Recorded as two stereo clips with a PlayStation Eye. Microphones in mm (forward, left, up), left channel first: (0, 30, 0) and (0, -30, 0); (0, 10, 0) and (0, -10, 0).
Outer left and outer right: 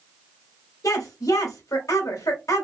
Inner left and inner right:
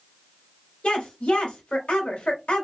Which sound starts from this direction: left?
A woman speaking, at 0.8 s.